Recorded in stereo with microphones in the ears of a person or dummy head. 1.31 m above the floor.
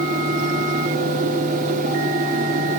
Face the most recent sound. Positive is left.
turn(degrees=-45)  # may be behind; listen again after turning